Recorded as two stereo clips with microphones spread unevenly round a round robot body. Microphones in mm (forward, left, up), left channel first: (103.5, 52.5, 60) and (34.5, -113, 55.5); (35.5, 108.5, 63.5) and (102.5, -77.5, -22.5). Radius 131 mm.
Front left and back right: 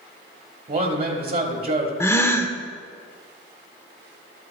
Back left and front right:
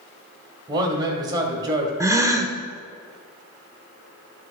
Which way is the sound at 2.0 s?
10° right.